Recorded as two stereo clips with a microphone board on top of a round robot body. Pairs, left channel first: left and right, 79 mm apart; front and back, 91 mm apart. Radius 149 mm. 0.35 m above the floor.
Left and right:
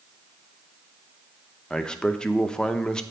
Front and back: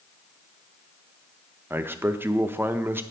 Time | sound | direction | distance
1.7 | a man speaking | 155° left | 0.8 m